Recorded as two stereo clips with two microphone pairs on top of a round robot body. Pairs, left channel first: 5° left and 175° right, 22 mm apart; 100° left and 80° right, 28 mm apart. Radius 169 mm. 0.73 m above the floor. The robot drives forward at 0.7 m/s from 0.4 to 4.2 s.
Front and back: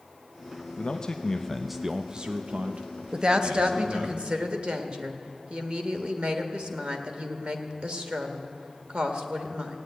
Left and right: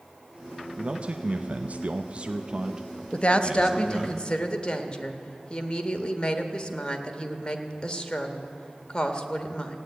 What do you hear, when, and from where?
0.8 s a man speaking: 30° right, 1.0 m; by 4.1 s 165° right, 1.8 m
3.1 s a woman speaking: 130° left, 1.0 m; by 9.8 s 155° left, 1.5 m